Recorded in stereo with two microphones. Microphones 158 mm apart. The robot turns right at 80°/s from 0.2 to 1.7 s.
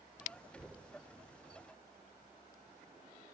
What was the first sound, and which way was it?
Knocking, 175° left.